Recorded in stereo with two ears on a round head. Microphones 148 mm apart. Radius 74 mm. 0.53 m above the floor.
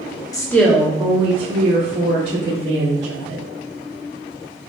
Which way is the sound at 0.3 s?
20° left (ahead or behind).